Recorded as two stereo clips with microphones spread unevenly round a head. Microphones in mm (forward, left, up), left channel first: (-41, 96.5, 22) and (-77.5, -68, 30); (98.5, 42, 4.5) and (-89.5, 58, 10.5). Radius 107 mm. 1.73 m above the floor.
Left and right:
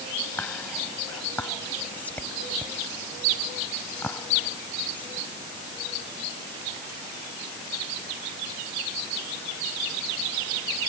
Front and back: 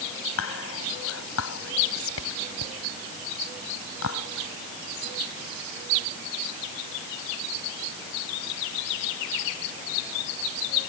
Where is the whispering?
5° right.